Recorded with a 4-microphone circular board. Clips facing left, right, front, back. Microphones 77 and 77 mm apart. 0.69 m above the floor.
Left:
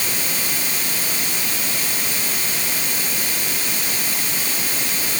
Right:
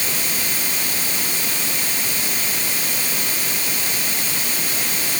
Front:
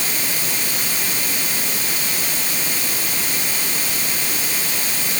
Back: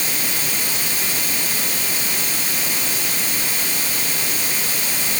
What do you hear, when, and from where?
Only background noise.